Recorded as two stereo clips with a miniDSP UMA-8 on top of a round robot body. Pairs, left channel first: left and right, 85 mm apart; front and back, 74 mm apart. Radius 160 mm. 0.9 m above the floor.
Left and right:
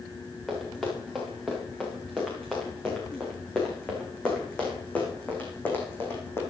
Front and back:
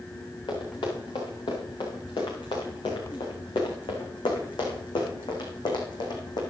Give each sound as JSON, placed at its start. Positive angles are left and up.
{"t": 0.5, "sound": "running footsteps", "azimuth_deg": 5, "distance_m": 7.0}